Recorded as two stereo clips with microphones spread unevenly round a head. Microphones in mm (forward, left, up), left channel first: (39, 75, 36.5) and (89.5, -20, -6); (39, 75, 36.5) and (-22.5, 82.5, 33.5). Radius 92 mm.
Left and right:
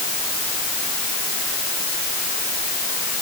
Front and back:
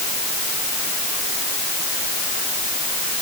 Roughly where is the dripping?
I don't hear dripping.